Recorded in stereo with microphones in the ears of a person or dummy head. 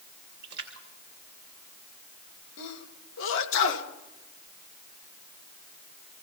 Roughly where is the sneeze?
Left.